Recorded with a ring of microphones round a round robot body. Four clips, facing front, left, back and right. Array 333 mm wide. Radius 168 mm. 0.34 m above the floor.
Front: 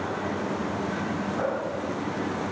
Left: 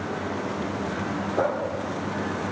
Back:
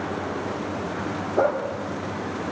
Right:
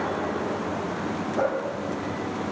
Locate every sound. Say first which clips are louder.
1.4 s a dog barking: even, back 9 dB; 155° left, 5 m